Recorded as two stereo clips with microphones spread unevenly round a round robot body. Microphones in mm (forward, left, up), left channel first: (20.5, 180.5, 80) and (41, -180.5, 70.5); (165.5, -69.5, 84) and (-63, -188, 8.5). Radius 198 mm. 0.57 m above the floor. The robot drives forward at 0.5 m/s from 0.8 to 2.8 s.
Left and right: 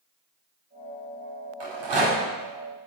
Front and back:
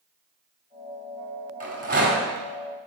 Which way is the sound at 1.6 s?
100° right.